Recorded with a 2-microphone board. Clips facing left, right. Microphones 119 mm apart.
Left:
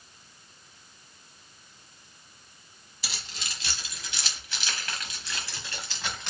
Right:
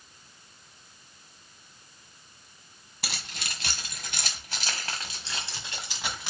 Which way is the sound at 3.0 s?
60° right (ahead or behind).